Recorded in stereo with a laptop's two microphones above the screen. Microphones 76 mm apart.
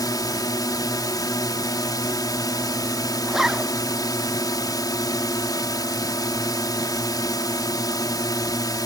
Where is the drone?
65° left (ahead or behind).